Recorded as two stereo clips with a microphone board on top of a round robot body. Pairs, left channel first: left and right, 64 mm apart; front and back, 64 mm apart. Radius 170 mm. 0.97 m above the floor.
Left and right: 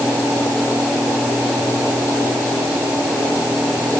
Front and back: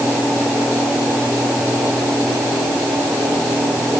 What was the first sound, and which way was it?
Only background noise.